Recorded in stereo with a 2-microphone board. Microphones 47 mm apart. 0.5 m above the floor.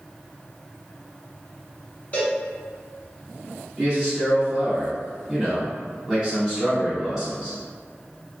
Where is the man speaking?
15° right (ahead or behind), 1.5 m.